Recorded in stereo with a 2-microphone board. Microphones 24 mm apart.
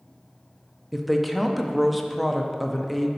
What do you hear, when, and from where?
0.9 s a woman speaking: centre (ahead or behind), 0.6 m